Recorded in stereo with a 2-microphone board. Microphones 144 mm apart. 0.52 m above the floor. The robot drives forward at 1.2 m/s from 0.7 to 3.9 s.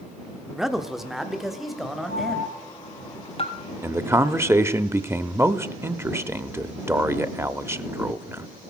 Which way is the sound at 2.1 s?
70° left (ahead or behind).